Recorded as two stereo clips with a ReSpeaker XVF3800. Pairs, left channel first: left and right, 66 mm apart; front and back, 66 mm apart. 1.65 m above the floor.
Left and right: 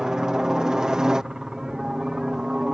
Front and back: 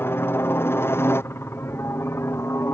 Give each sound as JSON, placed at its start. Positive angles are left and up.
{"t": 0.0, "sound": "a helicopter", "azimuth_deg": -15}